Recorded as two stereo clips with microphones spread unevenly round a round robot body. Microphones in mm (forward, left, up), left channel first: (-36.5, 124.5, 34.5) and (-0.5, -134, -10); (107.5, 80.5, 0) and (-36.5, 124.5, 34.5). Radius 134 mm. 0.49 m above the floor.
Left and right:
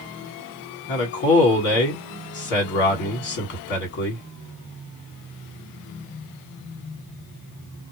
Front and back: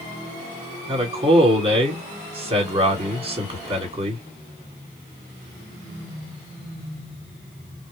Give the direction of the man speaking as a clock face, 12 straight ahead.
8 o'clock.